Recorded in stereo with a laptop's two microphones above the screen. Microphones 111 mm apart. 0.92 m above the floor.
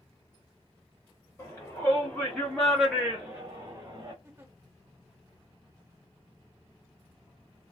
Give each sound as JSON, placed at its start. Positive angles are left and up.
{"t": 1.4, "sound": "a shout", "side_deg": 30, "distance_m": 1.6}
{"t": 4.2, "sound": "a giggle", "side_deg": -20, "distance_m": 0.8}